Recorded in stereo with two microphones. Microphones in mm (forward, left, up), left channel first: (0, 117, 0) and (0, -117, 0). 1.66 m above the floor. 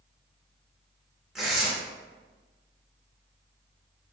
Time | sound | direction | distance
1.4 | tearing paper | centre (ahead or behind) | 1.0 m